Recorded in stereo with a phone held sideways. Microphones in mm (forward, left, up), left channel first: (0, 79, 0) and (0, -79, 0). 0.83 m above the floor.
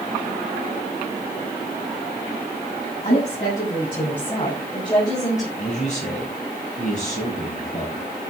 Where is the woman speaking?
35° left (ahead or behind), 6.5 m; by 5.5 s 20° left (ahead or behind), 4 m.